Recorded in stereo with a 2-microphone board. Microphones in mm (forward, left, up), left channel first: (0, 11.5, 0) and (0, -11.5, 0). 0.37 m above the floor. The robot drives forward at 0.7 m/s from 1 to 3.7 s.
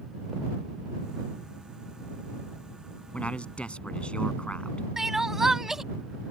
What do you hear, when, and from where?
3.1 s a man speaking: 65° left (ahead or behind); by 4.9 s 60° left (ahead or behind)
5.0 s crying: 15° right (ahead or behind)